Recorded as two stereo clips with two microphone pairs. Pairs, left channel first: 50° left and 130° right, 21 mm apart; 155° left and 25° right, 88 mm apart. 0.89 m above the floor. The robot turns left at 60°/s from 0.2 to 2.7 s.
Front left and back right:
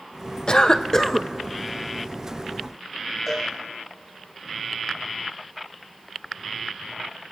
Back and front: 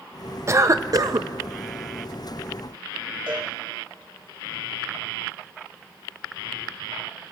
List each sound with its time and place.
0.5 s a cough: 20° left, 0.5 m; by 1.3 s 30° right, 0.5 m
3.3 s a cowbell: 40° right, 2.5 m